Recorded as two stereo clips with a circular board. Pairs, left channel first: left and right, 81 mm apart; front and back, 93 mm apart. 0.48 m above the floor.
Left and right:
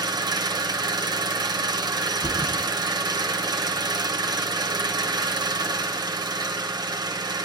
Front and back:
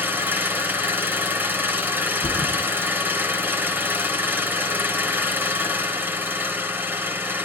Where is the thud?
155° left, 2.5 m.